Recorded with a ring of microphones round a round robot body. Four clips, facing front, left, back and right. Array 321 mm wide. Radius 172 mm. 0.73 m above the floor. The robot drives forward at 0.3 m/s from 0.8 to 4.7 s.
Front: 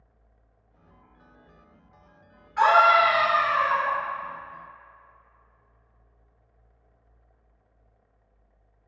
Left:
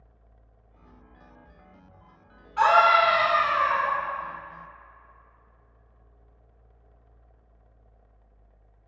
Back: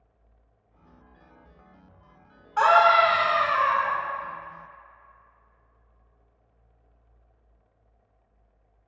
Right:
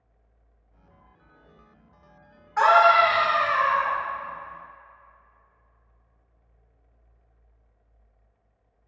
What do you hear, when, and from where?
2.6 s a scream: 140° right, 3.5 m; by 3.9 s 145° right, 3.5 m